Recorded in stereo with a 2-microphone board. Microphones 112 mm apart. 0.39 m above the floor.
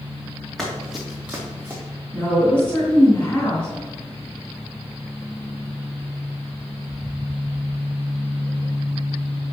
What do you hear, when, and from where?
0.6 s running footsteps: centre (ahead or behind), 2.5 m; by 1.8 s 20° right (ahead or behind), 2 m
2.1 s a woman speaking: 25° left (ahead or behind), 3 m